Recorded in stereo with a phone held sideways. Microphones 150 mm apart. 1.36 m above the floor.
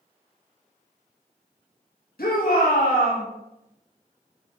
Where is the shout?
90° left, 1.8 m; by 3.2 s 85° left, 2.5 m.